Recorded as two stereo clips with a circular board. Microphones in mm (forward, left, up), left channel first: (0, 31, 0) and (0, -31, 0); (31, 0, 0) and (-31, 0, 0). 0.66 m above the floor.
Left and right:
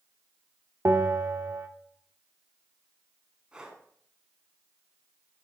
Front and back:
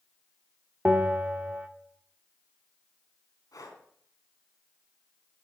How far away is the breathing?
About 2.5 m.